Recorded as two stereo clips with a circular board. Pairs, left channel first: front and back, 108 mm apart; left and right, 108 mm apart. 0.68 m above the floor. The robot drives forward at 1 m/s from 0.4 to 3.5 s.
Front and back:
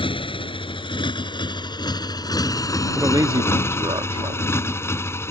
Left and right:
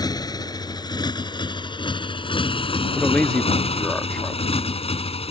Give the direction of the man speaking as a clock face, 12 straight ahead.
7 o'clock.